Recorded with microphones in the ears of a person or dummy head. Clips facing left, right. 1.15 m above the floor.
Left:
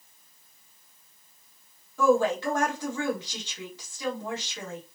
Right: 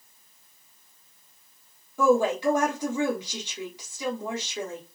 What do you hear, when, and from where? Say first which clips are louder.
2.0 s a woman speaking: right 1 dB; 10° right (ahead or behind), 1.4 m